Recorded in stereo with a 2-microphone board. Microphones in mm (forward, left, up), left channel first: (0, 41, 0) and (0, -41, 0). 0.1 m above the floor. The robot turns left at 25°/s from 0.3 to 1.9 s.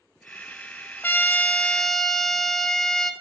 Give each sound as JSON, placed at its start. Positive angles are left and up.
{"t": 1.0, "sound": "a trumpet", "side_deg": 25, "distance_m": 0.7}